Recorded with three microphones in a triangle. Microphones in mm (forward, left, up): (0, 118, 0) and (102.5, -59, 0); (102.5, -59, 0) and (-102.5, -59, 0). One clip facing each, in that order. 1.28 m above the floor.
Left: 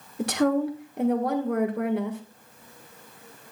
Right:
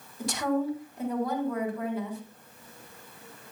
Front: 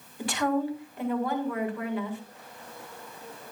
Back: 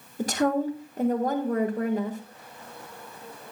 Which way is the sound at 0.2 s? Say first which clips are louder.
Left 5 dB, back 3 dB; 135° left.